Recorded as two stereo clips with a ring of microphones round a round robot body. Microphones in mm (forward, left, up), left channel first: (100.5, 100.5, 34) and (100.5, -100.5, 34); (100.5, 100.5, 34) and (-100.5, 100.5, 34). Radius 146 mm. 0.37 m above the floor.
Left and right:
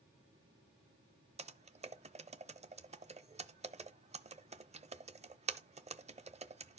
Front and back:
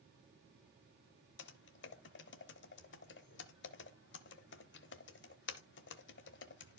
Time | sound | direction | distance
1.4 | typing on a keyboard | 30° right | 0.8 m